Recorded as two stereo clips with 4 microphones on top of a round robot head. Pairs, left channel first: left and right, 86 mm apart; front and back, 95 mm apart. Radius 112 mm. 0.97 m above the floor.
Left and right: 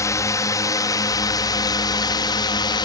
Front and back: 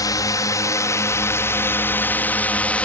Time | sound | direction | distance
0.0 | a drone | 45° left | ?